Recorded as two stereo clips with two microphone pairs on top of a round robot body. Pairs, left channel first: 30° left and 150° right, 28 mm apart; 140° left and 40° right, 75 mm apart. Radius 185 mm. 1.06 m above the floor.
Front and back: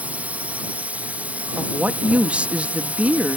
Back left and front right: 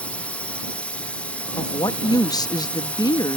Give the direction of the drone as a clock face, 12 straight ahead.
5 o'clock.